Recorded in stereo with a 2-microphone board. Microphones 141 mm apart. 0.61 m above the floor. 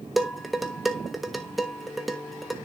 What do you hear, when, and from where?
0.2 s dishes clattering: centre (ahead or behind), 1.2 m